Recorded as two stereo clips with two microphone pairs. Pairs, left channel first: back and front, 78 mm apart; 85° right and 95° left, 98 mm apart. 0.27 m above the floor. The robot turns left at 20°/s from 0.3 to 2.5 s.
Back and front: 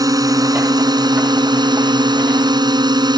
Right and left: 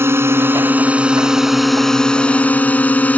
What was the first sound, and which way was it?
A drone, 30° left.